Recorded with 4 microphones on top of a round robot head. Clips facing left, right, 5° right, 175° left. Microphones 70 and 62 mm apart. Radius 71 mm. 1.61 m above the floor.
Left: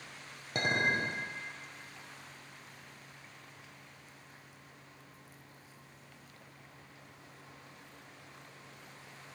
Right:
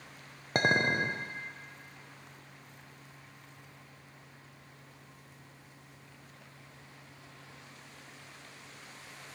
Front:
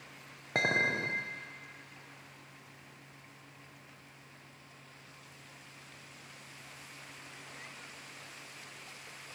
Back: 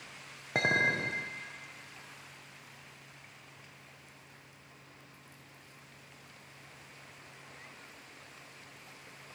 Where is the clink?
100° right, 0.6 m.